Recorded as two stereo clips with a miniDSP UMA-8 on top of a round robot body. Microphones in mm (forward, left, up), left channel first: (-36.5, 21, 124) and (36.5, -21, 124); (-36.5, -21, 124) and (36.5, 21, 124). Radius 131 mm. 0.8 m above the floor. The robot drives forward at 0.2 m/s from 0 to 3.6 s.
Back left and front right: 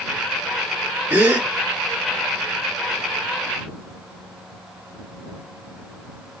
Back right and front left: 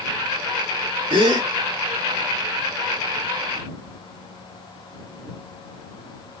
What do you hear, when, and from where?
1.1 s a gasp: 40° left, 2 m